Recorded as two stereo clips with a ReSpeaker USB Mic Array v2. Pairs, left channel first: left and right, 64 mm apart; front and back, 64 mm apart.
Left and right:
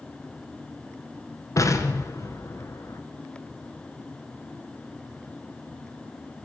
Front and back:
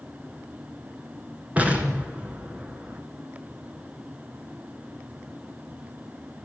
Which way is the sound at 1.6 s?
115° left.